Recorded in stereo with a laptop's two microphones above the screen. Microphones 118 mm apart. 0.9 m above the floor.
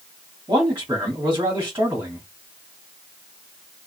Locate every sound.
0.5 s a man speaking: 25° right (ahead or behind), 2.0 m